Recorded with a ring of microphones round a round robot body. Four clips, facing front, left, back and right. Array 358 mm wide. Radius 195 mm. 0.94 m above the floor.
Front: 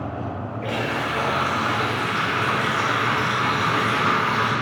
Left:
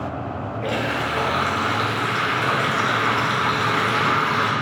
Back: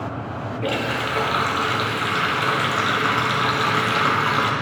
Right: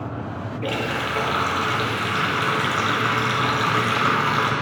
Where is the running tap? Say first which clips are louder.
Left 1 dB, back 1 dB; 155° right, 1.2 m.